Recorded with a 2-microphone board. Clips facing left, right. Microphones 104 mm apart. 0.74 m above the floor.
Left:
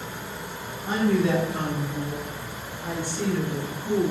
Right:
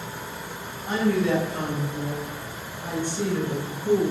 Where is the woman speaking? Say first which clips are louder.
Even; 10° left (ahead or behind), 1.6 m; by 4.1 s 40° right (ahead or behind), 0.7 m.